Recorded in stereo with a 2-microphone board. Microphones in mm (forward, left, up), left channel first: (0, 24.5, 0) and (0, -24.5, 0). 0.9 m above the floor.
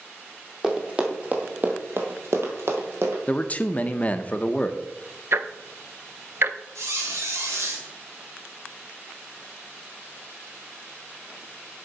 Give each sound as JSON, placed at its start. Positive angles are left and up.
{"t": 0.6, "sound": "running footsteps", "side_deg": -15, "distance_m": 2.0}
{"t": 3.3, "sound": "a man speaking", "side_deg": 30, "distance_m": 0.6}
{"t": 5.3, "sound": "ticking", "side_deg": -55, "distance_m": 0.5}
{"t": 6.8, "sound": "a squeak", "side_deg": -75, "distance_m": 2.0}